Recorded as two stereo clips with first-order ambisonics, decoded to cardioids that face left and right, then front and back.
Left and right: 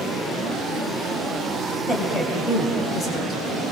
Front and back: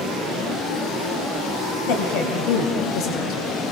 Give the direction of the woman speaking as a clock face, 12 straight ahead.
12 o'clock.